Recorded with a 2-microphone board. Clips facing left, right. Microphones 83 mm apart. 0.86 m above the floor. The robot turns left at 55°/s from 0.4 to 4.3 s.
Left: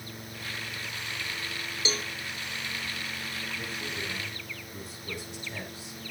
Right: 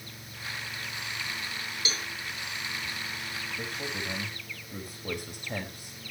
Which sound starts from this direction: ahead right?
A man speaking, at 3.6 s.